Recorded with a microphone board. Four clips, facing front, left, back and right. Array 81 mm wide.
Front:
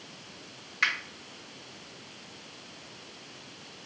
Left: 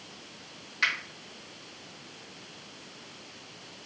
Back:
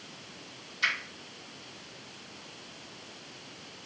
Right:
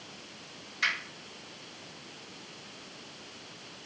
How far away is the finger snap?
About 1.0 m.